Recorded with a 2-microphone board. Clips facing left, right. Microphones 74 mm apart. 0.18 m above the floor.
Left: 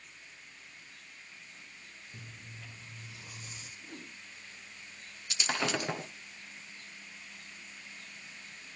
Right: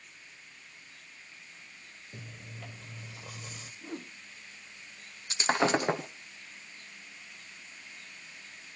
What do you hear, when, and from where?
2.1 s chewing: 70° right (ahead or behind), 1.8 m
3.8 s a whoosh: 40° right (ahead or behind), 1.1 m
5.3 s breaking glass: 35° right (ahead or behind), 1.0 m